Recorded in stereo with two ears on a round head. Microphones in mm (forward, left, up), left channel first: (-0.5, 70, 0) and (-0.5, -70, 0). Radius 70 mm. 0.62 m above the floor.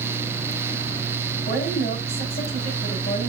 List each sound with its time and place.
1.5 s a woman speaking: 45° left (ahead or behind), 5.5 m